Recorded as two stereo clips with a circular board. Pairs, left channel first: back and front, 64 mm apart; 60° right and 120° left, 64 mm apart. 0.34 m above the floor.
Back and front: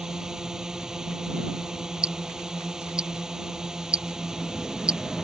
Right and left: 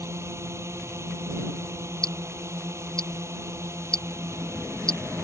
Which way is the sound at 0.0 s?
80° left.